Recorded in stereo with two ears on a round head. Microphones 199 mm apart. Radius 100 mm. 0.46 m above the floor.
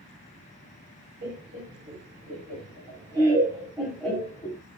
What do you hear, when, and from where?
1.2 s laughter: 45° right (ahead or behind), 2.0 m; by 4.6 s 15° left (ahead or behind), 1.5 m